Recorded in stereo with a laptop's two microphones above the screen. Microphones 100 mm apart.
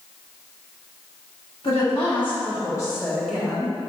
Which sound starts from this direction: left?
A woman speaking, at 1.6 s.